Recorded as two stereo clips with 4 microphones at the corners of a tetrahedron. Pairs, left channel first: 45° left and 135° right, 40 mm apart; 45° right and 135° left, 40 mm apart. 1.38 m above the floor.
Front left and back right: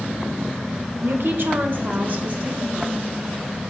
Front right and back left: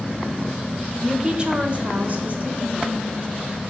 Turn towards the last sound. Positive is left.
turn(degrees=170)